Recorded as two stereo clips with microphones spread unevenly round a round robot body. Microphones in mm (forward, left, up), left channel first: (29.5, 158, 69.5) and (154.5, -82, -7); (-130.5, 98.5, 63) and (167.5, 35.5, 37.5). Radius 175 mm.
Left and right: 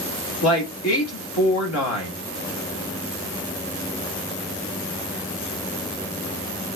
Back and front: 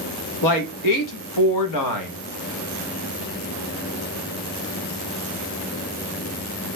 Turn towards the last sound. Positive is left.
turn(degrees=170)